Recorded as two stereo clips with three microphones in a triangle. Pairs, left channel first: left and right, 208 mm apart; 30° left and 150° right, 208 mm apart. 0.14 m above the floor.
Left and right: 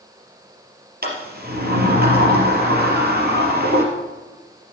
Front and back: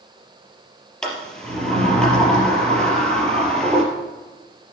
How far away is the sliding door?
About 3.5 m.